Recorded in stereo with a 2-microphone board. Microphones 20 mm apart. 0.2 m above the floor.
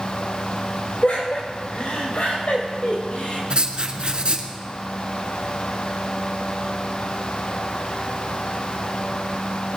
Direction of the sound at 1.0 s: 70° left (ahead or behind).